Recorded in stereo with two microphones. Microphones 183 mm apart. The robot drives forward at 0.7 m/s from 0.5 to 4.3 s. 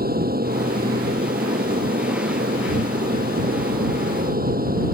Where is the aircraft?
60° right (ahead or behind).